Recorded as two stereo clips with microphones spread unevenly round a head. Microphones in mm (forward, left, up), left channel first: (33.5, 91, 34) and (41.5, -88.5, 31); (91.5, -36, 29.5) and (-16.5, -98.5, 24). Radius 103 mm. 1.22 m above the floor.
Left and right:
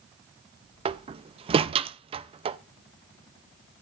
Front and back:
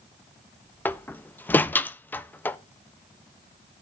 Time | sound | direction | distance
0.8 | a door slam | 35° right | 0.5 m